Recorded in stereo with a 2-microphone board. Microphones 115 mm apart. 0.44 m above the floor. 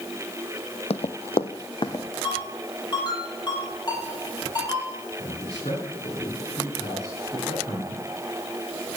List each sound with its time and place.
0.9 s running footsteps: 65° left (ahead or behind), 0.9 m; by 2.0 s 40° left (ahead or behind), 2 m
2.2 s a ringtone: 40° left (ahead or behind), 6.5 m
5.2 s a man speaking: 55° left (ahead or behind), 6.5 m